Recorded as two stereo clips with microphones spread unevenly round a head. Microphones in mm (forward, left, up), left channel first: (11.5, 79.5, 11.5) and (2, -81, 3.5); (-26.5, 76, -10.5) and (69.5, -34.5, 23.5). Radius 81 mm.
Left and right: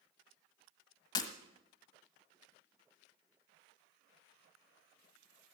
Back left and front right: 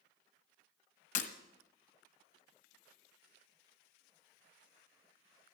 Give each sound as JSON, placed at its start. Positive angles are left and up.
{"t": 1.1, "sound": "breaking glass", "azimuth_deg": 130, "distance_m": 1.2}